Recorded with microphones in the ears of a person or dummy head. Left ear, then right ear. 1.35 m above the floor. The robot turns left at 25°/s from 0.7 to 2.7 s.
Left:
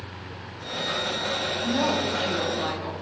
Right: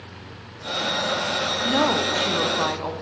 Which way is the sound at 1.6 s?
65° right (ahead or behind).